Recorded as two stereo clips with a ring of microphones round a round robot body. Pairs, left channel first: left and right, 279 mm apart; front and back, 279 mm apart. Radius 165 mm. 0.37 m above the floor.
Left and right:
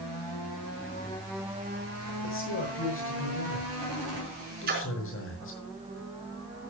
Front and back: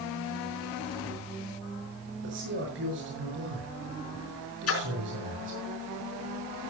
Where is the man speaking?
130° left, 6.5 m.